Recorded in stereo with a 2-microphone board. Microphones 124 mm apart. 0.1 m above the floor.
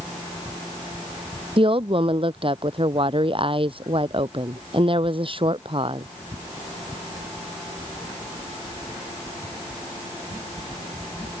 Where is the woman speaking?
45° right (ahead or behind).